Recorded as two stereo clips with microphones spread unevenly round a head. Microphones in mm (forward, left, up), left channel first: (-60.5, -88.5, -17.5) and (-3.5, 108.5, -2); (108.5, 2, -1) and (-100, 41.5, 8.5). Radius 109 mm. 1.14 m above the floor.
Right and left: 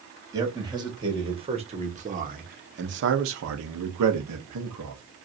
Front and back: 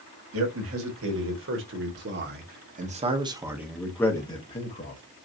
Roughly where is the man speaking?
Behind left.